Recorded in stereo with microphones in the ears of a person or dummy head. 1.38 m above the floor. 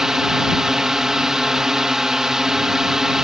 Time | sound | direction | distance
0.0 | a drone | centre (ahead or behind) | ?